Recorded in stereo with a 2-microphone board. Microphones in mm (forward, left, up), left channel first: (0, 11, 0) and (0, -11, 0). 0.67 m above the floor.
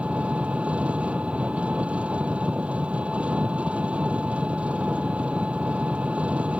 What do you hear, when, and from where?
0.0 s an engine running: 70° right (ahead or behind)